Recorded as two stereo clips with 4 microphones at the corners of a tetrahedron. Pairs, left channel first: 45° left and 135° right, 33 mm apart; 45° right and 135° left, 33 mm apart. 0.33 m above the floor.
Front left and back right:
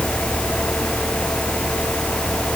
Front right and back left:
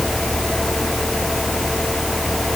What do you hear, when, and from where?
Only background noise.